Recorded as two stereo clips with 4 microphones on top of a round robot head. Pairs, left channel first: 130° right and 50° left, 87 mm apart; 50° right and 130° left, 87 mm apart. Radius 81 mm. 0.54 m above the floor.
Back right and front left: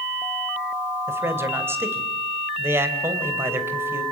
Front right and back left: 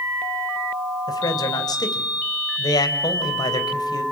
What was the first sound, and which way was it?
A man speaking, 10° right.